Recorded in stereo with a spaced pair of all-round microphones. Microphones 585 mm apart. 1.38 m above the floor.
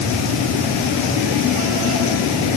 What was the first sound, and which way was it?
Only background noise.